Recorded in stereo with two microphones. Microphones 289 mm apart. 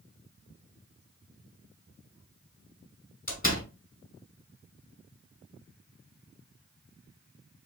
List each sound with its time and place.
3.3 s a door slam: 30° left (ahead or behind), 1.9 m